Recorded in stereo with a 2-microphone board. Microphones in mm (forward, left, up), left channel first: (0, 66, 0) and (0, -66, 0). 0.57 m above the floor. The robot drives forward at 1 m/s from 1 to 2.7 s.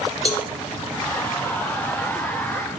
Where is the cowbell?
50° left (ahead or behind), 0.8 m.